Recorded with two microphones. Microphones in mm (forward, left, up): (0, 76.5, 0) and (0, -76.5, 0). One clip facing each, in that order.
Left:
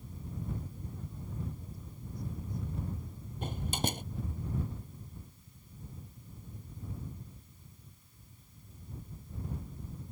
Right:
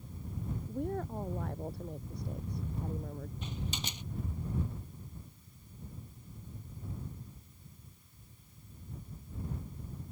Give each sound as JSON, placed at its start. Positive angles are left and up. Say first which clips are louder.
{"t": 0.7, "sound": "a woman speaking", "louder": "right 11 dB", "side_deg": -75}
{"t": 3.4, "sound": "a door slam", "louder": "left 9 dB", "side_deg": 50}